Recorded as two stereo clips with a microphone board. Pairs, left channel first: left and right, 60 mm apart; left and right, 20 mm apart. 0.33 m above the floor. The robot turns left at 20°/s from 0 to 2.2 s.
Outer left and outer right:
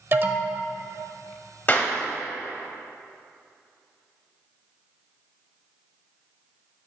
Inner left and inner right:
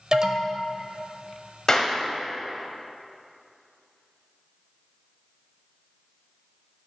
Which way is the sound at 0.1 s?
40° right (ahead or behind).